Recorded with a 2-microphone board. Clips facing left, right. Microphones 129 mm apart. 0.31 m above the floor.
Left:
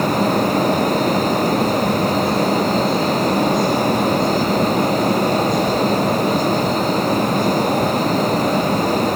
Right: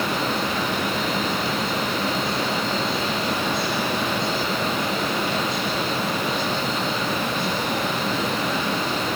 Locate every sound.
Only background noise.